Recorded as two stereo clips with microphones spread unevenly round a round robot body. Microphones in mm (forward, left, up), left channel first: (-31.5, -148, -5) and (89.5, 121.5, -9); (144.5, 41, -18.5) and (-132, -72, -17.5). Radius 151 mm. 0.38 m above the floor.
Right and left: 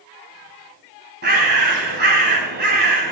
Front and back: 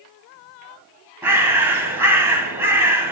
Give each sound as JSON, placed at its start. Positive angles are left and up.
{"t": 1.2, "sound": "a bird", "azimuth_deg": 120, "distance_m": 2.5}